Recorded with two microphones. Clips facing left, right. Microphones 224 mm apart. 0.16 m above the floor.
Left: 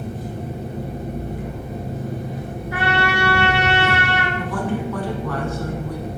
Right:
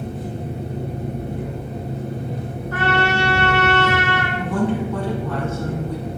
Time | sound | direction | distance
0.0 | an engine running | 60° right (ahead or behind) | 2.5 m
2.7 | a trumpet | 10° left (ahead or behind) | 1.1 m
4.4 | a woman speaking | 25° right (ahead or behind) | 1.2 m